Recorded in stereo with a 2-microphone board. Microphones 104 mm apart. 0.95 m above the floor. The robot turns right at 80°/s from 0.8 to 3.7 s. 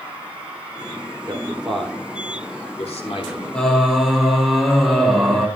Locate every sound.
1.3 s a man speaking: 40° right (ahead or behind), 3 m; by 4.1 s 25° left (ahead or behind), 3 m
3.5 s singing: 10° left (ahead or behind), 3 m; by 5.5 s centre (ahead or behind), 3 m